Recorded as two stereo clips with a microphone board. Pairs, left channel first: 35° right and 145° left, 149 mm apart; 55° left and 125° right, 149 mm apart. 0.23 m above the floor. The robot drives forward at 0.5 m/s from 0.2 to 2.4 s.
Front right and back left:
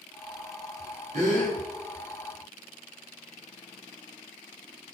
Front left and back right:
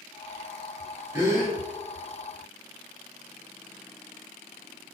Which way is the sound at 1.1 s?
165° left.